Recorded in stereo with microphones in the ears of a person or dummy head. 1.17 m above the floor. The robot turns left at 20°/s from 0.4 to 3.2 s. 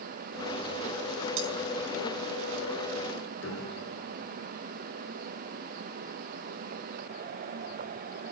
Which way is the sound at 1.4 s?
65° right (ahead or behind).